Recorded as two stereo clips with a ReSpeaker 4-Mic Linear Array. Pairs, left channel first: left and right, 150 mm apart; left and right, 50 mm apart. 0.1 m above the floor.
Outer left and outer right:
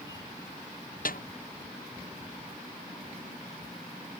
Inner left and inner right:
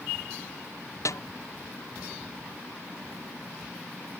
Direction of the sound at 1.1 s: 70° left (ahead or behind).